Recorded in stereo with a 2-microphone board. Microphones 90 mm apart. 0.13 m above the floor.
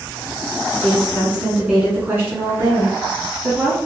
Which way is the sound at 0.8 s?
Centre (ahead or behind).